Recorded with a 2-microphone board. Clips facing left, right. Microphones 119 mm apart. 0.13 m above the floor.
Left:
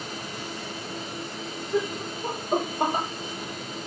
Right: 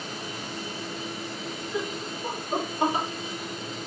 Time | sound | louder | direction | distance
1.7 | laughter | left 6 dB | 45° left (ahead or behind) | 4.5 m